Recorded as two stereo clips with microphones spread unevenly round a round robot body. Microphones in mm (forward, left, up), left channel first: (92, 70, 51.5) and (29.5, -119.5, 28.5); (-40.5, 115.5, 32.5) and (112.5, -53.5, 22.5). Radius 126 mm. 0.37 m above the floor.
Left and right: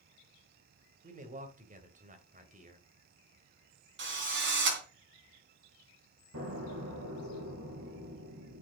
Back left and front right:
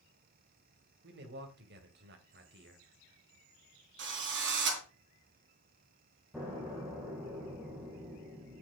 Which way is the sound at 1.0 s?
75° right.